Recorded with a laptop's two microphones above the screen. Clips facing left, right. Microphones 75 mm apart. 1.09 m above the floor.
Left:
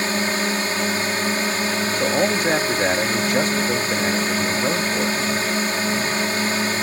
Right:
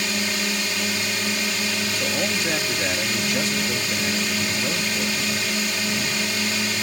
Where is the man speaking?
45° left (ahead or behind).